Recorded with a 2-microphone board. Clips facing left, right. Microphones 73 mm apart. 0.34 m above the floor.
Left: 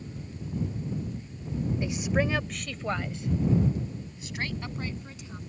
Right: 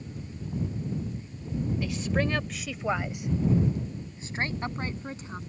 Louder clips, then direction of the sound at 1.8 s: Left 2 dB; 25° left (ahead or behind).